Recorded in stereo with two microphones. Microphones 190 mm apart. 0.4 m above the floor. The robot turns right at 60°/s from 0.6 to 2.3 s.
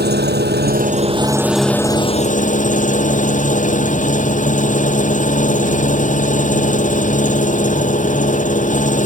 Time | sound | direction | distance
0.0 | an engine running | 60° right | ?